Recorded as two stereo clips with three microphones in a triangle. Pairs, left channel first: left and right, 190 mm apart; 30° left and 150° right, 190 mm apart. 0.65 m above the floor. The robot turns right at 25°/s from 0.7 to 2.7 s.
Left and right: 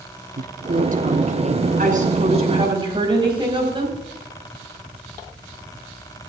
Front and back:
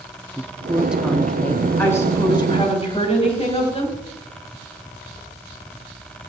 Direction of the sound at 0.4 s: 70° right.